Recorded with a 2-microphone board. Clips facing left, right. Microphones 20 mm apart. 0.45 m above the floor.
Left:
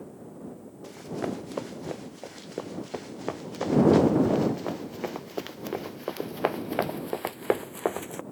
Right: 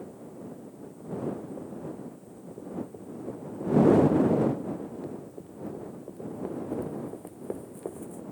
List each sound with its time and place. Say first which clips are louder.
0.8 s running footsteps: left 2 dB; 80° left; by 8.2 s 60° left (ahead or behind)